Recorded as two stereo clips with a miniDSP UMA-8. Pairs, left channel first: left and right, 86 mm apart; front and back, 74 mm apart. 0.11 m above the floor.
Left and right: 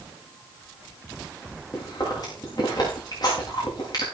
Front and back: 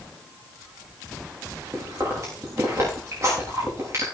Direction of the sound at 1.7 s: 130° left.